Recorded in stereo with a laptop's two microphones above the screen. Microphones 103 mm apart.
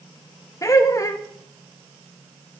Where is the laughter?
30° left (ahead or behind), 1.3 m.